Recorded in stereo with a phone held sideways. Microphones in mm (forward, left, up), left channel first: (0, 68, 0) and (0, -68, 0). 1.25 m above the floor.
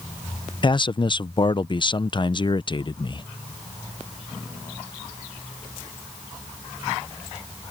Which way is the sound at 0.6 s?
35° left (ahead or behind).